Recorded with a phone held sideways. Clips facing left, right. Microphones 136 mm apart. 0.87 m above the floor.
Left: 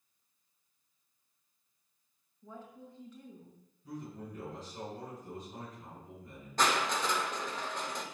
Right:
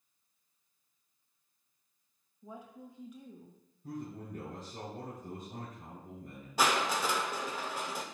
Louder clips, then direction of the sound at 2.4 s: Right 1 dB; 15° right (ahead or behind).